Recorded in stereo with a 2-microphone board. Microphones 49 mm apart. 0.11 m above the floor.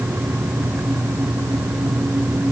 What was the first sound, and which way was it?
Only background noise.